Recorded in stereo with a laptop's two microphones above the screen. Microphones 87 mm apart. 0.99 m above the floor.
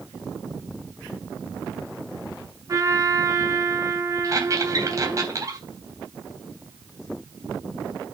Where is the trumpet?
35° right (ahead or behind), 1.9 m.